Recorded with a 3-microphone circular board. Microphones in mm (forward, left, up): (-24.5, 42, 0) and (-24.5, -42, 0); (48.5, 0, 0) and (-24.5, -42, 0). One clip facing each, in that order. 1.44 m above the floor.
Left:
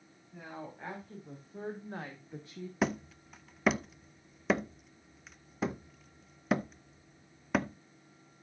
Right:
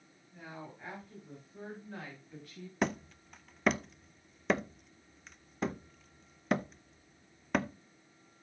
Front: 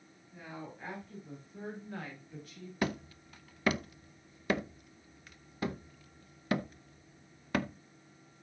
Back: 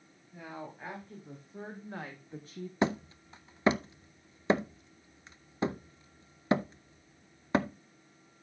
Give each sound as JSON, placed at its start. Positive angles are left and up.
{"t": 0.3, "sound": "a woman speaking", "azimuth_deg": 140, "distance_m": 4.5}
{"t": 2.8, "sound": "hammering", "azimuth_deg": 175, "distance_m": 0.6}